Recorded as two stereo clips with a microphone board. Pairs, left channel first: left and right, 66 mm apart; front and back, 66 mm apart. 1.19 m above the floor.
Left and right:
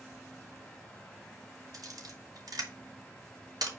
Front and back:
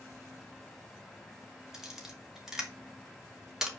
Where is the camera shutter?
100° right, 2.5 m.